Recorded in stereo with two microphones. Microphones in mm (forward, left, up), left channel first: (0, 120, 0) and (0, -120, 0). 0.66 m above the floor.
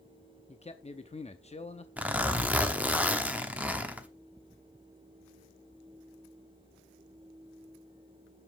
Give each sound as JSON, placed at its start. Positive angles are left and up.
{"t": 0.5, "sound": "a man speaking", "side_deg": 30, "distance_m": 0.7}
{"t": 2.0, "sound": "a zipper", "side_deg": -5, "distance_m": 0.9}